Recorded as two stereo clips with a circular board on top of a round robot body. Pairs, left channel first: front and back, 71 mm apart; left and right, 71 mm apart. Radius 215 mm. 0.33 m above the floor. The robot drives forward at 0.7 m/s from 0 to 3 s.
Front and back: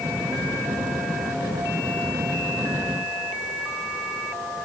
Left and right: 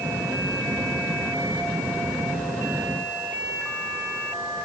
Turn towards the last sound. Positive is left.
No sound to turn to.